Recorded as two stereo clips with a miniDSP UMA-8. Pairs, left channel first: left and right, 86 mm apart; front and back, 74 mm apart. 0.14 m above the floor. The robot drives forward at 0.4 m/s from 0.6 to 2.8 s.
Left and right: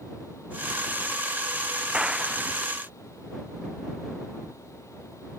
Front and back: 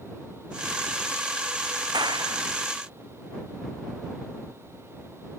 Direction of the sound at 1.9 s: 170° right.